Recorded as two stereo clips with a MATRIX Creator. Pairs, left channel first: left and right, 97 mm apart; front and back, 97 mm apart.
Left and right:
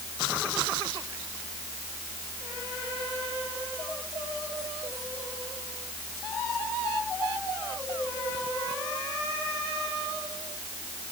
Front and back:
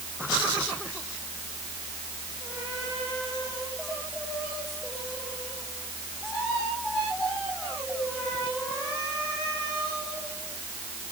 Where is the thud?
No thud in this recording.